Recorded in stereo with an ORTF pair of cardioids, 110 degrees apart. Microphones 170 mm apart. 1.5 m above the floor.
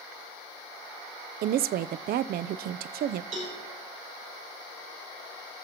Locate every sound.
1.4 s a woman speaking: 65° right, 0.6 m
3.3 s a cowbell: 50° right, 8 m